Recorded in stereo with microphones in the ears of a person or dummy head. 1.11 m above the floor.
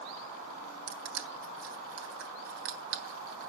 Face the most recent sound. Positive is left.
turn(degrees=-75)  # may be behind; listen again after turning